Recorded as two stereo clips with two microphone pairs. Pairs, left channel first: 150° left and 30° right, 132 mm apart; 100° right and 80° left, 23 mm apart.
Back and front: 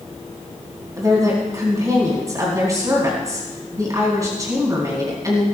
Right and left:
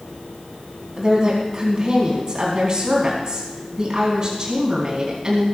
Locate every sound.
1.0 s a woman speaking: 30° left, 4 m